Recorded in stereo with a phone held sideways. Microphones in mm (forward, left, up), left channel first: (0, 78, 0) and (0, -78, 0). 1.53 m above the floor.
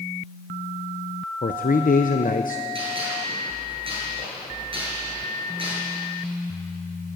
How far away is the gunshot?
About 7.5 m.